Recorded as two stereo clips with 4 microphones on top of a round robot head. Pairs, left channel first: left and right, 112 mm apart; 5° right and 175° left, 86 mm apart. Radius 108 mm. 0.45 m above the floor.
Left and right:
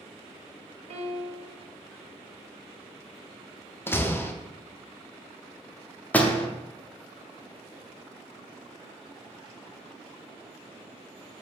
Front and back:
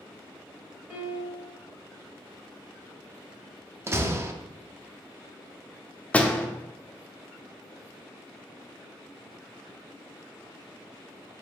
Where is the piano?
115° right, 0.7 m.